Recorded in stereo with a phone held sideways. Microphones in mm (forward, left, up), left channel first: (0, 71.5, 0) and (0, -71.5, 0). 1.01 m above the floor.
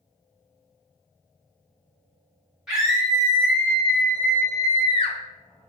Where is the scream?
5° right (ahead or behind), 1.6 m; by 5.2 s 45° left (ahead or behind), 0.5 m.